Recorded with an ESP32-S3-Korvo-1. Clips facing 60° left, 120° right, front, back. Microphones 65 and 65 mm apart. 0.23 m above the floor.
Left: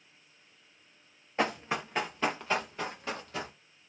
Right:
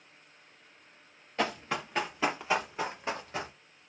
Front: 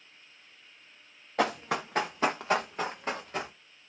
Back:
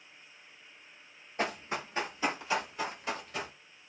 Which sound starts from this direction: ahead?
Running footsteps, at 1.4 s.